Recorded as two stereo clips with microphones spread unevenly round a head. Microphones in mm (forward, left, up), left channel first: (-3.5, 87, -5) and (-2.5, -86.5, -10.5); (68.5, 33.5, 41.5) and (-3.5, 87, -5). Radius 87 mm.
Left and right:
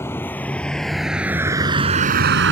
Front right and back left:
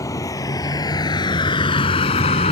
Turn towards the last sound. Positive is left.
turn(degrees=-70)